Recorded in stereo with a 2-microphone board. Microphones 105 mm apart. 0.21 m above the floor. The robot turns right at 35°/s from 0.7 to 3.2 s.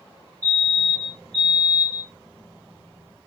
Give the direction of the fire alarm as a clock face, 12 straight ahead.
7 o'clock.